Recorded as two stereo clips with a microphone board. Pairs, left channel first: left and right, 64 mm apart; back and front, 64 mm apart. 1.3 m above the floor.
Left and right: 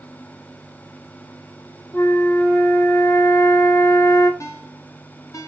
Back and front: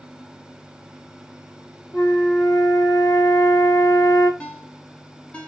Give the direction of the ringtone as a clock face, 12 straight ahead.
8 o'clock.